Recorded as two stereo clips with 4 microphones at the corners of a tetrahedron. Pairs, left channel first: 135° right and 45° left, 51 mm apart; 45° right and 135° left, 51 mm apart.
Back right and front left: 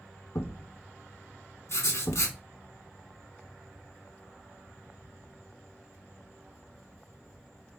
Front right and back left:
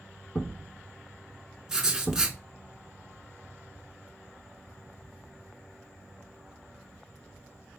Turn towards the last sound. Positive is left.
turn(degrees=-150)